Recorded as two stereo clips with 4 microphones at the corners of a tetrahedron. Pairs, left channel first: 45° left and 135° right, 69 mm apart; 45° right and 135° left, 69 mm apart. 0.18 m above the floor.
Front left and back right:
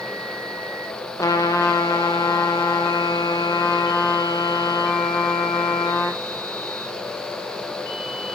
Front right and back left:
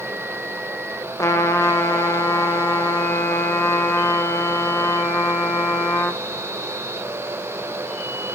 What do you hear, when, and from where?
1.2 s a trumpet: straight ahead, 1.1 m